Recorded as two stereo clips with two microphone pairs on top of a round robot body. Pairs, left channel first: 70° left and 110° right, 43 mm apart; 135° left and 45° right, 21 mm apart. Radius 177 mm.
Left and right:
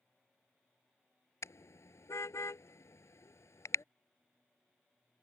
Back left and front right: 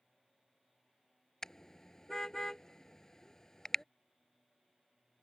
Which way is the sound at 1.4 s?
70° left.